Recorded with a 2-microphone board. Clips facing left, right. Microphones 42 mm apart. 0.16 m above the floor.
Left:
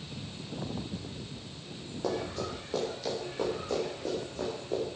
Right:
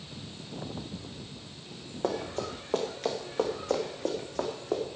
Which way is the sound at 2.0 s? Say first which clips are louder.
Right 1 dB; 40° right (ahead or behind).